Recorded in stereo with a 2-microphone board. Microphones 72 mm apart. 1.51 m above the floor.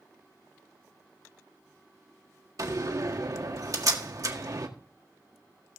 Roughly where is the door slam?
Right.